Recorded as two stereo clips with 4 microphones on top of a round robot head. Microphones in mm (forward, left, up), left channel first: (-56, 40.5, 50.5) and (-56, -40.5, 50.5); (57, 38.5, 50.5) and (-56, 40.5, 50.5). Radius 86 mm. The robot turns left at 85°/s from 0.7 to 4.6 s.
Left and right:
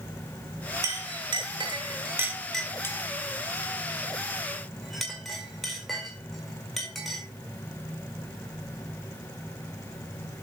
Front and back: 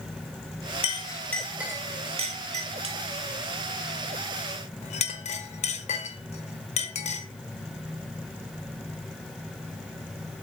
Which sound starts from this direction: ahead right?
A clink, at 0.8 s.